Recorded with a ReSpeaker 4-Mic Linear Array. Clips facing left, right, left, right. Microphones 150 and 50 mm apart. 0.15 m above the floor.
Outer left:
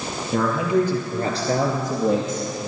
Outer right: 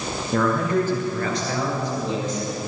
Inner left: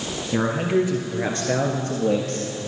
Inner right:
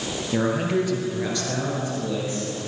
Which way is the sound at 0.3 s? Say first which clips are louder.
Outer left 1 dB, inner left 2 dB; centre (ahead or behind).